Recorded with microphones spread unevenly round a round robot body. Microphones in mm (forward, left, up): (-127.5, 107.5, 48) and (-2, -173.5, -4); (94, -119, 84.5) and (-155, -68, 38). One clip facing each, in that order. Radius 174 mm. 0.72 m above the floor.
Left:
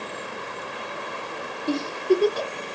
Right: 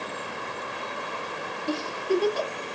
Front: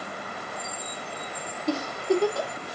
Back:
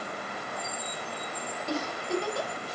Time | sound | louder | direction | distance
1.7 | a giggle | left 5 dB, front 7 dB | 45° left | 0.7 m